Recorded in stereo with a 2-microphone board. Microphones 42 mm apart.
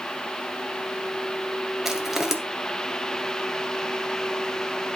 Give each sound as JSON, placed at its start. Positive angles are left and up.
{"t": 1.9, "sound": "crushing", "side_deg": -5, "distance_m": 2.0}